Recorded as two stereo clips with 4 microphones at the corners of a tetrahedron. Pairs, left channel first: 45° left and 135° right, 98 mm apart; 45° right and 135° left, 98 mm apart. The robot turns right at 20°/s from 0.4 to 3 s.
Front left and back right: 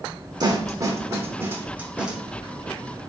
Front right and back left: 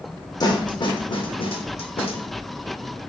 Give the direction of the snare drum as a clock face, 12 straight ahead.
3 o'clock.